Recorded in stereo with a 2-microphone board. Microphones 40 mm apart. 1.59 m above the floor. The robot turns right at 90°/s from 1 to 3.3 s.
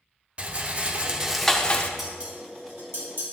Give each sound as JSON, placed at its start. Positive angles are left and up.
{"t": 0.4, "sound": "a rattle", "azimuth_deg": -40, "distance_m": 0.7}
{"t": 2.0, "sound": "dishes clattering", "side_deg": -10, "distance_m": 2.5}